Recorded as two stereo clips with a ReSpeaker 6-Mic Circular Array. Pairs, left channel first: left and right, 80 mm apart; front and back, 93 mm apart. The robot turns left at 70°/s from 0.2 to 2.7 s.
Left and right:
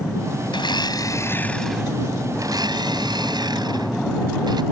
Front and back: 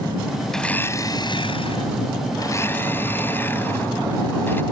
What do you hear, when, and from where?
0.5 s a blender: 85° left; by 4.6 s 65° right